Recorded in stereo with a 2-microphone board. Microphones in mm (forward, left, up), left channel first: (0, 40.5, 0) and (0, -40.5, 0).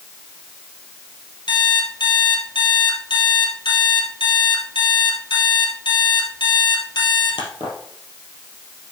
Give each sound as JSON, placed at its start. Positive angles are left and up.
{"t": 1.5, "sound": "an alarm clock", "side_deg": 70, "distance_m": 2.5}